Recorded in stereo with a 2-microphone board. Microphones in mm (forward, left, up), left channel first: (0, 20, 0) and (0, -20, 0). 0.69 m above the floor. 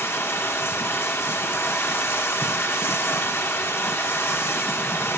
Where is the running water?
75° left (ahead or behind), 0.9 m.